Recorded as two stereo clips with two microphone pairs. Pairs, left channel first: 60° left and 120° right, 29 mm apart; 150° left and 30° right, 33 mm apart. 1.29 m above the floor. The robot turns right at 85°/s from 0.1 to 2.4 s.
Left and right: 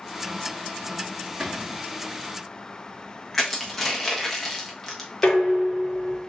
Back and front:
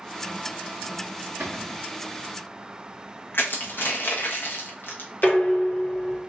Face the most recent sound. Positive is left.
turn(degrees=100)